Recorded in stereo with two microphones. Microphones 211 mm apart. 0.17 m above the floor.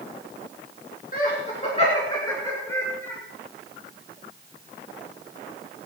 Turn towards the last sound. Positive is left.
turn(degrees=5)  # may be behind; listen again after turning